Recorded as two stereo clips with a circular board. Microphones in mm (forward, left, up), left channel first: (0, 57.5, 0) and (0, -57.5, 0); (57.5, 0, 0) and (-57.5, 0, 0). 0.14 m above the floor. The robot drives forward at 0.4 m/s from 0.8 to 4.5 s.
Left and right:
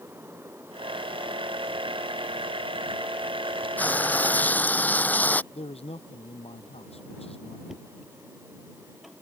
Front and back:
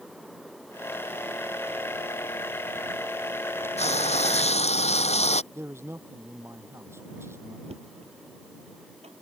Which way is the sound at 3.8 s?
15° left.